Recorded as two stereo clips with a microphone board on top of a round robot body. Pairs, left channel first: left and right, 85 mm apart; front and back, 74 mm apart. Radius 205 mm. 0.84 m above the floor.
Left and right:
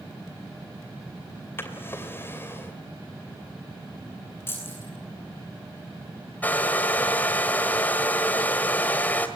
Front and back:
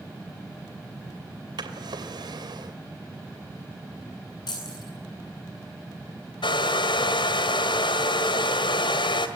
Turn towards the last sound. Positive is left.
turn(degrees=15)